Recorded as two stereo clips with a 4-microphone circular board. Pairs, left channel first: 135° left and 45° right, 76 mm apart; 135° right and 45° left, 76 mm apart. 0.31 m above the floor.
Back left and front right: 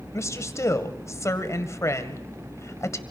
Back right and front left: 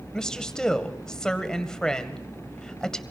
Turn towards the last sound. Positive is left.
turn(degrees=145)